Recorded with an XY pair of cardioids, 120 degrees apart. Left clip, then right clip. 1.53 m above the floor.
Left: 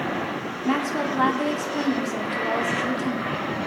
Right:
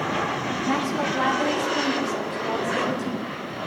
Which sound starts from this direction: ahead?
A woman speaking, at 0.7 s.